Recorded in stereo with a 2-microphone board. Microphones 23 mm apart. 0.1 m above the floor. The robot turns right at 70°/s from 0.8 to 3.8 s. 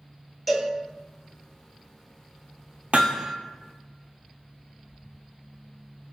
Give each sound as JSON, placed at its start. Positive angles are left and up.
{"t": 0.5, "sound": "a cowbell", "side_deg": 0, "distance_m": 1.1}
{"t": 2.9, "sound": "hammering", "side_deg": -60, "distance_m": 0.7}